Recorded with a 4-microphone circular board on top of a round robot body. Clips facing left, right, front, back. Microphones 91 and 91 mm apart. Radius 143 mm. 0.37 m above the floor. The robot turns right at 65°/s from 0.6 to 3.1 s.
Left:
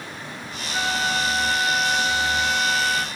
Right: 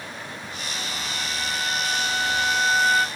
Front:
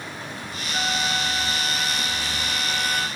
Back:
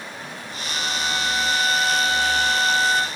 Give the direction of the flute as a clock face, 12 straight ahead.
10 o'clock.